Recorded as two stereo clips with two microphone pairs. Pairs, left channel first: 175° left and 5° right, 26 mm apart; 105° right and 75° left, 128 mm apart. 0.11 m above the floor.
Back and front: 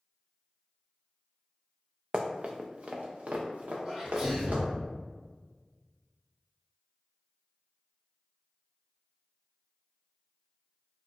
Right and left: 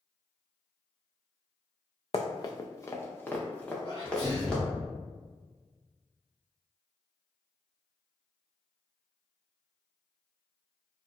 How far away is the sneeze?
About 1.8 m.